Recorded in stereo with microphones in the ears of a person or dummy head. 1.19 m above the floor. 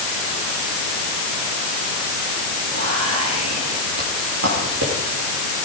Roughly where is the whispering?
Right.